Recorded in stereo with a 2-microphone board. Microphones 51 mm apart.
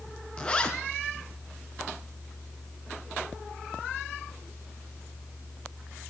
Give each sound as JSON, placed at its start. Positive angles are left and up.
{"t": 0.4, "sound": "a zipper", "side_deg": 20, "distance_m": 1.2}